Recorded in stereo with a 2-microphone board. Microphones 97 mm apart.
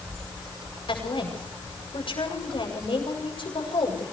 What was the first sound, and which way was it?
A woman speaking, 70° left (ahead or behind).